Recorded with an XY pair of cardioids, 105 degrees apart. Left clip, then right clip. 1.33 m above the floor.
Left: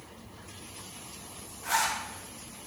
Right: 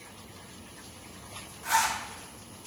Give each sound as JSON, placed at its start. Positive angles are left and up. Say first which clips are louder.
{"t": 1.6, "sound": "a zipper", "louder": "right 2 dB", "azimuth_deg": -5, "distance_m": 0.6}